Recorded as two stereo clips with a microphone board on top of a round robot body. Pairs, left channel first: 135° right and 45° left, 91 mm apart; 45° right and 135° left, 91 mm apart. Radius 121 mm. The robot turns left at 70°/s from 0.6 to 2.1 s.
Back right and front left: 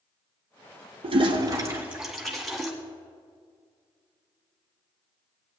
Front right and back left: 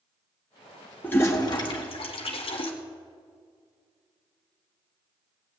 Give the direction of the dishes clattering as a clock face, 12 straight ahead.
No dishes clattering in this recording.